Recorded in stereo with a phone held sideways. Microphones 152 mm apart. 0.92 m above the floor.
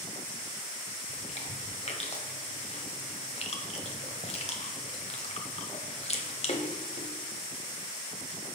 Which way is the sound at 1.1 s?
45° left (ahead or behind).